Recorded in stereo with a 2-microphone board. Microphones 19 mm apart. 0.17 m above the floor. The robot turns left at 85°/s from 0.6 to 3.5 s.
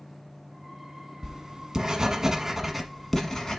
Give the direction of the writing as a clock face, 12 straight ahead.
1 o'clock.